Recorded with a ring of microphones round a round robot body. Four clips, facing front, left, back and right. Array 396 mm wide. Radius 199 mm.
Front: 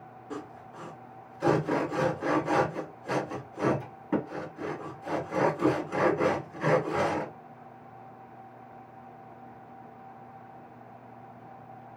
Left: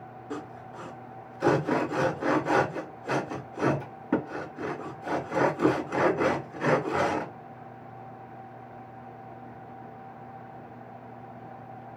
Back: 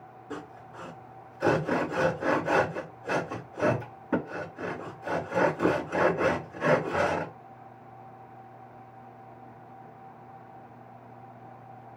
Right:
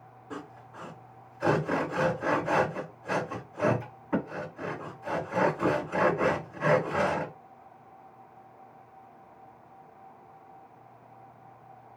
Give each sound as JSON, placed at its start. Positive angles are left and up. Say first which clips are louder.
{"t": 0.3, "sound": "sawing", "louder": "left 3 dB, even", "azimuth_deg": 85, "distance_m": 1.7}